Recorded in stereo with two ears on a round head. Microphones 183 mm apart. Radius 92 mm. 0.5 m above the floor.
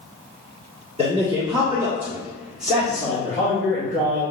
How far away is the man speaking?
About 1.4 m.